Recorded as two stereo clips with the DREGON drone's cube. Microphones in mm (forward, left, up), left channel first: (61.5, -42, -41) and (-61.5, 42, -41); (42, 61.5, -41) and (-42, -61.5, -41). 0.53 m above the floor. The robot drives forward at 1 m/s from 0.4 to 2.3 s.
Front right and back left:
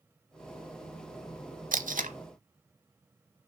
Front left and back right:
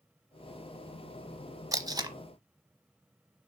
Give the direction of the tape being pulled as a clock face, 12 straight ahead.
6 o'clock.